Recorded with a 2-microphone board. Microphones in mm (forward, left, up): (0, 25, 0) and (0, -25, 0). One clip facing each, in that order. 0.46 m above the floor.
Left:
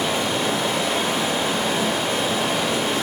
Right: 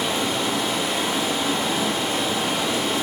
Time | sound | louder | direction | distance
0.0 | running water | left 1 dB | 50° left (ahead or behind) | 1.1 m